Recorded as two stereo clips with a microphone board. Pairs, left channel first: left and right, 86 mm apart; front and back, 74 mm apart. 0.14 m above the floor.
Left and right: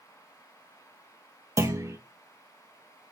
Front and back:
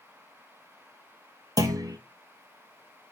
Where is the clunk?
145° right, 1.2 m.